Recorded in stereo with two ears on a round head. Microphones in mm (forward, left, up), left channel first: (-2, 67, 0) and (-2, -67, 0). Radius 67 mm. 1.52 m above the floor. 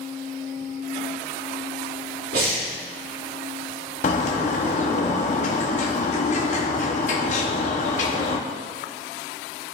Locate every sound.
2.3 s breathing: 70° right (ahead or behind), 2 m
4.0 s a bird: 50° left (ahead or behind), 0.8 m